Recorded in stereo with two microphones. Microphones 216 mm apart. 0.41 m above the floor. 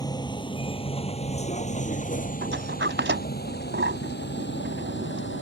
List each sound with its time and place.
0.0 s a vehicle: 20° left (ahead or behind); by 5.4 s 60° left (ahead or behind)
2.4 s a sliding door: 60° right (ahead or behind)